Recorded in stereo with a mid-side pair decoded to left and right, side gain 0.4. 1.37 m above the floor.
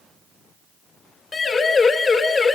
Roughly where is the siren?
Ahead left.